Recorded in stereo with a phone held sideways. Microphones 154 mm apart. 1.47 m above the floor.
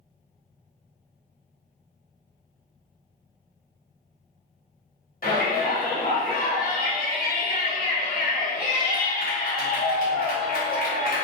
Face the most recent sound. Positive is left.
turn(degrees=60)  # may be behind; listen again after turning